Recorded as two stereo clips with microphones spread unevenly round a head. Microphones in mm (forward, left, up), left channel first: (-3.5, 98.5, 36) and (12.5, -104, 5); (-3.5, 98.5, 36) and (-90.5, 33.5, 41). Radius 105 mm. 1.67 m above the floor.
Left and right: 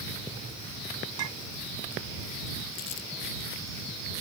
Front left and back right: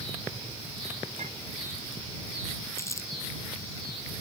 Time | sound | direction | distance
1.2 | a clink | 85° right | ?
2.8 | crumpling | 100° left | ?